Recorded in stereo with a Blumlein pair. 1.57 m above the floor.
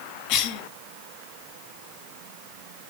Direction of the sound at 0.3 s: 40° left.